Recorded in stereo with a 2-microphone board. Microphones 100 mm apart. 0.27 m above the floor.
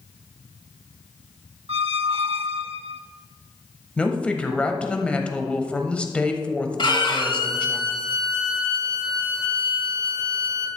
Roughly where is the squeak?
Right.